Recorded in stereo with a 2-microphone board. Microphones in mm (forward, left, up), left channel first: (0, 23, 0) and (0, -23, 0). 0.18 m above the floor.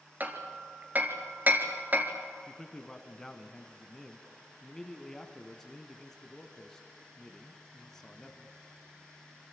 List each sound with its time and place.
0.2 s hammering: 40° right (ahead or behind), 2.5 m
2.5 s a man speaking: 10° left (ahead or behind), 1.8 m